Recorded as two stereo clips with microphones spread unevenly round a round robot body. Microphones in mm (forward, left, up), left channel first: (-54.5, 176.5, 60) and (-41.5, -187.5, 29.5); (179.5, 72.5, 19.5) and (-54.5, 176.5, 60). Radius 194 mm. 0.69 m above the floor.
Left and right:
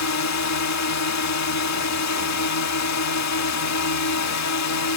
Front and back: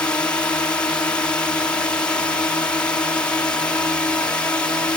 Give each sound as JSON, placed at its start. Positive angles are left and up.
{"t": 0.0, "sound": "a drone", "azimuth_deg": 55}